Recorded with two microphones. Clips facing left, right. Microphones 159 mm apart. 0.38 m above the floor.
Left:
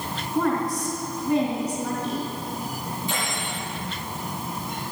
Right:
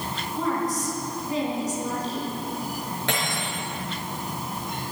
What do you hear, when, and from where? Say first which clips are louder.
0.3 s a woman speaking: left 3 dB; 65° left (ahead or behind), 3 m
3.1 s cutlery clinking: right 3 dB; 80° right, 4 m